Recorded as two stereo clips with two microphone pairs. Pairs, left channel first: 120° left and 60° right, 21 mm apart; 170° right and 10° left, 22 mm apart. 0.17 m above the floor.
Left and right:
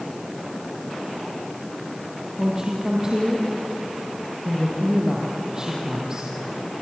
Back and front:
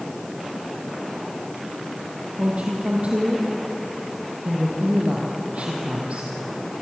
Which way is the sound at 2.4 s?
5° right.